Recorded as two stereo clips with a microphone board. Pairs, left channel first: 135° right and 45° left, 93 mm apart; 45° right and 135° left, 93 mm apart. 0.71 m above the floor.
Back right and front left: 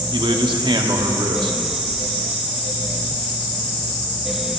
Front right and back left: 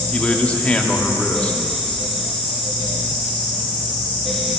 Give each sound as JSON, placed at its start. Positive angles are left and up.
{"t": 0.1, "sound": "a man speaking", "azimuth_deg": 30, "distance_m": 1.2}